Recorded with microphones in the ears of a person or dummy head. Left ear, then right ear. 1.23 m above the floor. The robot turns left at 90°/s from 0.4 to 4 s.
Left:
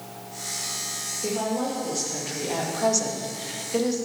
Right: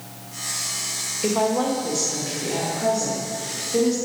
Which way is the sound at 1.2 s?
110° right.